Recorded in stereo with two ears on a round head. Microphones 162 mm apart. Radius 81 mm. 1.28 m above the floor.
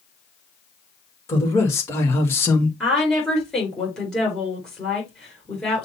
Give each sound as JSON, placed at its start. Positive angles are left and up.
{"t": 1.3, "sound": "a man speaking", "side_deg": 15, "distance_m": 2.5}
{"t": 2.8, "sound": "a woman speaking", "side_deg": 5, "distance_m": 4.0}